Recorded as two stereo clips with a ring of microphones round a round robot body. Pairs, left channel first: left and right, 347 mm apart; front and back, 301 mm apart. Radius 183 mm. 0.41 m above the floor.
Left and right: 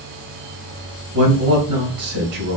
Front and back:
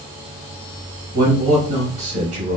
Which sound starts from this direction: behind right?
A man speaking, at 1.1 s.